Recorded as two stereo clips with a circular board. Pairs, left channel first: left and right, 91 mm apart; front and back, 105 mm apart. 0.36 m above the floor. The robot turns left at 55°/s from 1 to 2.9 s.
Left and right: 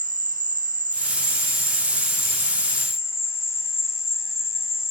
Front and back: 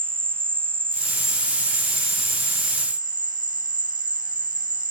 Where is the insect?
110° right, 0.8 m; by 4.9 s 145° left, 0.8 m.